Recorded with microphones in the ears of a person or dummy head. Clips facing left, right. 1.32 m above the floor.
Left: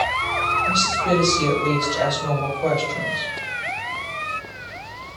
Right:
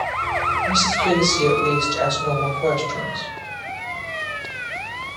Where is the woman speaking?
20° right (ahead or behind), 4.5 m.